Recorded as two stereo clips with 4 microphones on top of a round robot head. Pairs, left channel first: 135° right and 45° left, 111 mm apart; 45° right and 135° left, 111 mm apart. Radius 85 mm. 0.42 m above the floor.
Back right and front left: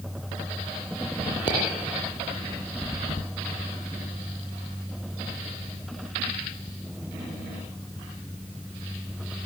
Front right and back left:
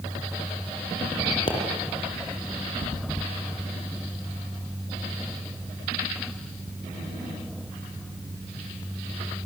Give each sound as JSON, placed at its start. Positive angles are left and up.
{"t": 1.5, "sound": "a pop", "azimuth_deg": -90, "distance_m": 6.0}